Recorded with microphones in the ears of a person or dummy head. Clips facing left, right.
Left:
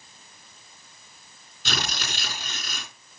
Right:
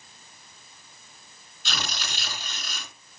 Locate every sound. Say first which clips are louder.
1.6 s tearing paper: left 3 dB; 50° left (ahead or behind), 3 m